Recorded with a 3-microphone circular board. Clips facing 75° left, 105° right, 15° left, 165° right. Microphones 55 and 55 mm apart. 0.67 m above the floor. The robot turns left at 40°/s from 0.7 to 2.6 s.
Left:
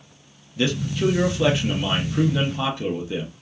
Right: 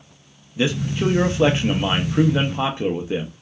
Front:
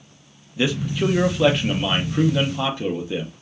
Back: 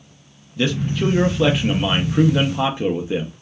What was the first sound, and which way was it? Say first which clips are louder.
A man speaking: right 1 dB, back 1 dB; 50° right.